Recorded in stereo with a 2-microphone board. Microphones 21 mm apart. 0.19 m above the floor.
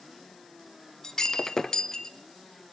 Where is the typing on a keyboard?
I don't hear typing on a keyboard.